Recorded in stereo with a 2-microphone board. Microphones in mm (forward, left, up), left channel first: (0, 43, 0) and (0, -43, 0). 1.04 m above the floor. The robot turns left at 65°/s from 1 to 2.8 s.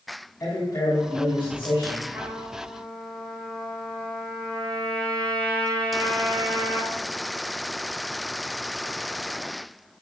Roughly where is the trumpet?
Behind right.